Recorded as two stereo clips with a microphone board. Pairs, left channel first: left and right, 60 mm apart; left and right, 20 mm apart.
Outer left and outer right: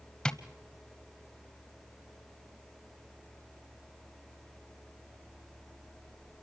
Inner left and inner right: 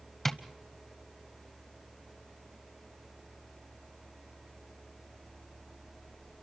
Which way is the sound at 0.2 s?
10° left (ahead or behind).